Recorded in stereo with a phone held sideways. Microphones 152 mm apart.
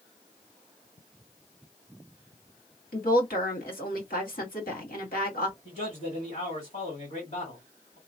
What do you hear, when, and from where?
2.9 s a woman speaking: 75° left (ahead or behind), 1.9 m
5.7 s a man speaking: 55° left (ahead or behind), 2.0 m